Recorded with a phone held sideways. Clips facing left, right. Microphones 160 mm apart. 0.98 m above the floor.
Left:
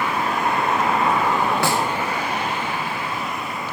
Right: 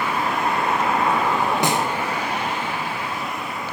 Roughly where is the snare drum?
Centre.